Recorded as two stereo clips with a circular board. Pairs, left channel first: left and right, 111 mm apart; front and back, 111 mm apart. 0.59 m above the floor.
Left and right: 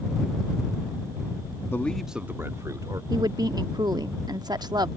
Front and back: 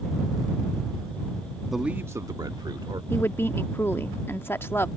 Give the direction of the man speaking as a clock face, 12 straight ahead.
9 o'clock.